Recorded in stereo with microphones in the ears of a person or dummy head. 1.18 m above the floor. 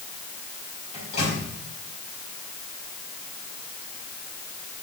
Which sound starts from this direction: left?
A microwave, at 0.9 s.